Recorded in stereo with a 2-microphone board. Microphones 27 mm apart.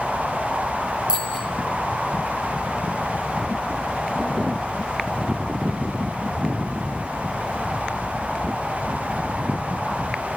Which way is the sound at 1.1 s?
35° right (ahead or behind).